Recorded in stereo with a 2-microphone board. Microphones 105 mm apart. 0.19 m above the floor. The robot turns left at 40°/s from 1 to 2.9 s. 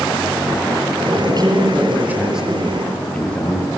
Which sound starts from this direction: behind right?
A man speaking, at 1.3 s.